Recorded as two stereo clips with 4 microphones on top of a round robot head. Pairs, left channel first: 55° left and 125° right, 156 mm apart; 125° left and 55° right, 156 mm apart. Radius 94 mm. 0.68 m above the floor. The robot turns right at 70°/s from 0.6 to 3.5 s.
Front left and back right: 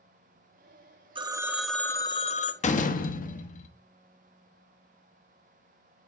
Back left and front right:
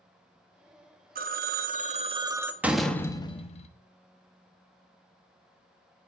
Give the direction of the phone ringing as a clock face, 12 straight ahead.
2 o'clock.